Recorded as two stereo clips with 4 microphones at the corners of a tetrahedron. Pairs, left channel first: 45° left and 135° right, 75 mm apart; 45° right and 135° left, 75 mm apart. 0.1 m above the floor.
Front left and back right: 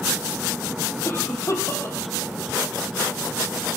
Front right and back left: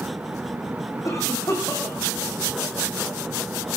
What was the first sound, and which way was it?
A cough, 5° right.